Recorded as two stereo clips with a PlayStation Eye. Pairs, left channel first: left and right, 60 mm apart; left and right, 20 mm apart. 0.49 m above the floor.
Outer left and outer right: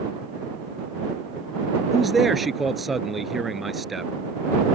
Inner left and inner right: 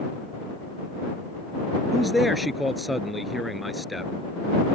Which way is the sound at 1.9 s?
5° right (ahead or behind).